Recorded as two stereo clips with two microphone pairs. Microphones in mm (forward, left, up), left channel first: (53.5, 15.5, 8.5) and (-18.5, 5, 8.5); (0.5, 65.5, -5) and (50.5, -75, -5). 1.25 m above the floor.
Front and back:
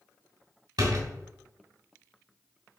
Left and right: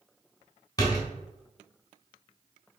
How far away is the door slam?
About 3 m.